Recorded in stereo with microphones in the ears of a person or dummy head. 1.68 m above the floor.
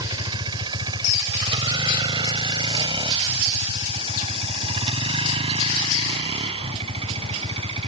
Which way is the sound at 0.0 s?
20° right (ahead or behind).